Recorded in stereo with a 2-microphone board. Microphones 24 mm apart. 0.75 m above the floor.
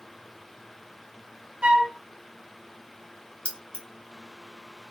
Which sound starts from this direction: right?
A flute, at 1.6 s.